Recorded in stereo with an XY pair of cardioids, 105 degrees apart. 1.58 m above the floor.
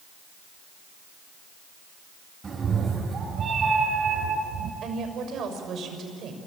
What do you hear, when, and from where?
2.4 s a cat meowing: 30° right, 4.5 m; by 4.7 s 70° right, 4.5 m
4.8 s a woman speaking: 60° right, 6.5 m